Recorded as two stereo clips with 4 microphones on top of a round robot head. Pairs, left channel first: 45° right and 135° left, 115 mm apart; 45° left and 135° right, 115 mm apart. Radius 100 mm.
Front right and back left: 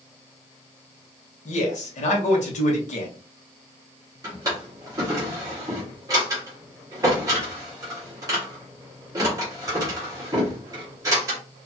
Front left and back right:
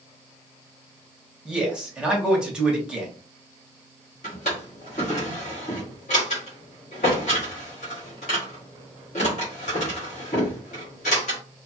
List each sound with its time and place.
1.4 s a man speaking: 50° right, 1.1 m
4.2 s a drawer: 70° left, 1.2 m